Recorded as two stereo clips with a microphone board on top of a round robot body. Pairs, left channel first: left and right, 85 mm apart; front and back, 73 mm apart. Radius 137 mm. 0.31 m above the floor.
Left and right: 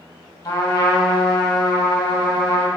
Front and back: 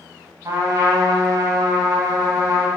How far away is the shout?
No shout in this recording.